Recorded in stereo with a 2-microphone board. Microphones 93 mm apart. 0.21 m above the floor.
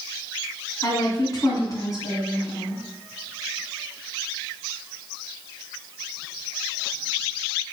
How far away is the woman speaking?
About 2.5 m.